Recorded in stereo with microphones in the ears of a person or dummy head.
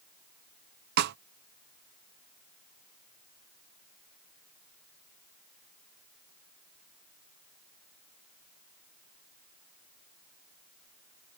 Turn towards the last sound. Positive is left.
turn(degrees=-55)  # may be behind; listen again after turning